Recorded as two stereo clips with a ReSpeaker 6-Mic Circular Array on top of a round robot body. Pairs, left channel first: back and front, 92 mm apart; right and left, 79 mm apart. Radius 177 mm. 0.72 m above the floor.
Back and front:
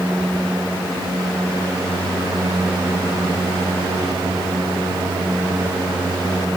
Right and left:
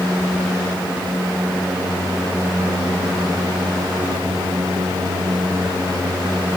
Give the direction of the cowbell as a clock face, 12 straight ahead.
No cowbell in this recording.